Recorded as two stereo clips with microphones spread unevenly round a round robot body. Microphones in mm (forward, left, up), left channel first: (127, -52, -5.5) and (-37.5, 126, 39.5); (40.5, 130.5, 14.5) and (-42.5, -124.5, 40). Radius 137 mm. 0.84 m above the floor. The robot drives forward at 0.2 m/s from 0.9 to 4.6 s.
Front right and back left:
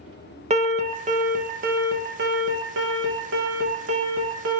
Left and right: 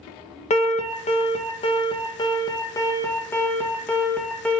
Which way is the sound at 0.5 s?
80° left.